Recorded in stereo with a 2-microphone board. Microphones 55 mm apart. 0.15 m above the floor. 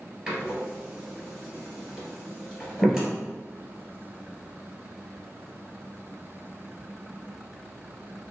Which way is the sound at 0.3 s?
10° right (ahead or behind).